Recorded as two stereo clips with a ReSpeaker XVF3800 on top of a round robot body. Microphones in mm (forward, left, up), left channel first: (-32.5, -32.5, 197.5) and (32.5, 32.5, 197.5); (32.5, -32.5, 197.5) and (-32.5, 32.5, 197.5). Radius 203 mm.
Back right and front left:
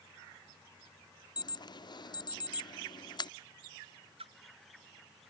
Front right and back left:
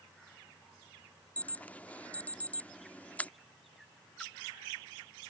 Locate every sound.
1.4 s an alarm: 115° right
4.2 s a splash: 40° left